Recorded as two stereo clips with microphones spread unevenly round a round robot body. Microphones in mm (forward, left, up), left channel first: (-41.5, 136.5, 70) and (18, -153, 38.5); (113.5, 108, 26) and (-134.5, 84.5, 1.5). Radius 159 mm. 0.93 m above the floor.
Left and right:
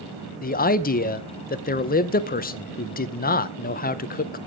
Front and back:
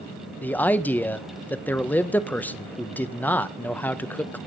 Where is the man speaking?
90° left, 0.8 m.